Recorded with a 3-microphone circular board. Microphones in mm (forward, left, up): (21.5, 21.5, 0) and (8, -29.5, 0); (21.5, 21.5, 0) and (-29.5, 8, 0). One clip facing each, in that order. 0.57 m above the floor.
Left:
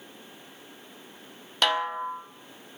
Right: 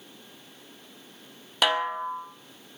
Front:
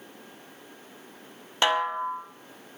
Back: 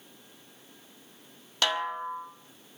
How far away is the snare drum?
About 1.3 m.